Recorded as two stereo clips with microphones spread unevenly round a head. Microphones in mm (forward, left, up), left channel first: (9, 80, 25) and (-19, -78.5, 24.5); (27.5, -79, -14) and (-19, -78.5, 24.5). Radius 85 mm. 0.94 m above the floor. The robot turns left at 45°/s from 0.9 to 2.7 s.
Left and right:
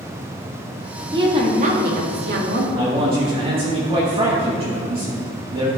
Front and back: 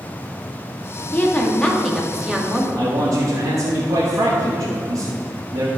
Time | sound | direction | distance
1.1 | a woman speaking | 35° right | 2 m
2.8 | a man speaking | 150° right | 1.6 m